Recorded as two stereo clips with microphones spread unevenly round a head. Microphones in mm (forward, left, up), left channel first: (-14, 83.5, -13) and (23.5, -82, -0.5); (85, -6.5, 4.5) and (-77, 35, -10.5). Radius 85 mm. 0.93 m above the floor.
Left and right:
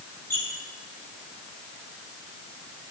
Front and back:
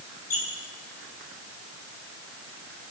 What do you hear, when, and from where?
0.3 s a squeak: 25° left, 8 m